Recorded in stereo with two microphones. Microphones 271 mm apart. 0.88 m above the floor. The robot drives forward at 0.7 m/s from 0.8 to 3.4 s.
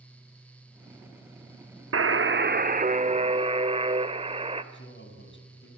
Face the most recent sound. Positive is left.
turn(degrees=45)  # may be behind; listen again after turning